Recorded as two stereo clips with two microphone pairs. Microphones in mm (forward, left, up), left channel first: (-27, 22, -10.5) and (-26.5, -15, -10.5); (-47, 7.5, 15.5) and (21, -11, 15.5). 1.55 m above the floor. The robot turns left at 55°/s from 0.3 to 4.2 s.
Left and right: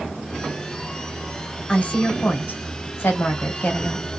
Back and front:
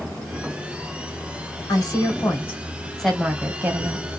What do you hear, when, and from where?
1.7 s a woman speaking: 155° left, 1.1 m; by 4.1 s 20° left, 1.1 m